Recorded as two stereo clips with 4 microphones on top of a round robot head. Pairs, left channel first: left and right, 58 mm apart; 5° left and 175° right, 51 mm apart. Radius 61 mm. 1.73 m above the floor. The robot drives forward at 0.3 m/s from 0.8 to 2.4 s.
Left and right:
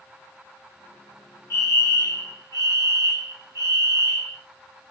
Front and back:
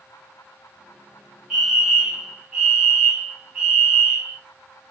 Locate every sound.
1.5 s a fire alarm: 105° left, 1.3 m; by 4.4 s 115° left, 1.4 m